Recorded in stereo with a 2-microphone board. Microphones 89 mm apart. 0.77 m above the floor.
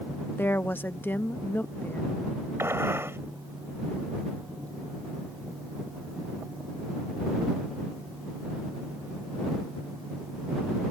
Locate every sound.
0.4 s a woman speaking: 20° left (ahead or behind)
2.6 s a gunshot: 30° right (ahead or behind)